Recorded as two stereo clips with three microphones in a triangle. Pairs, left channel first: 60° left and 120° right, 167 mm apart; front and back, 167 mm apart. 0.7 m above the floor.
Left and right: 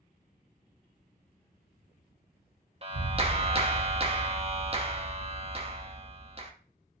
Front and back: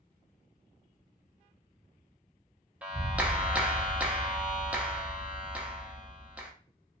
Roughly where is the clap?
Right.